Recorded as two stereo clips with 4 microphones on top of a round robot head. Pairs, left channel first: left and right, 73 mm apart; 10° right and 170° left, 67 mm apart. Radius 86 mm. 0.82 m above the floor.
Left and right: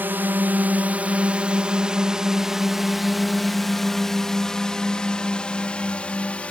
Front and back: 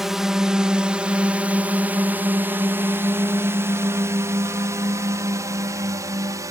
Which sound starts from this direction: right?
A drone, at 0.0 s.